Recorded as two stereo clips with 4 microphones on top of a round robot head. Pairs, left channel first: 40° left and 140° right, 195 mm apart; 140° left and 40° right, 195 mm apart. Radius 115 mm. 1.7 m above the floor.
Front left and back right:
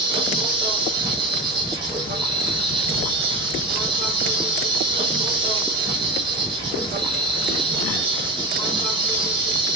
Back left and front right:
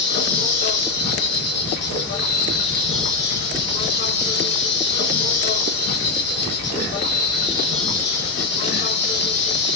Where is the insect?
160° left, 0.9 m.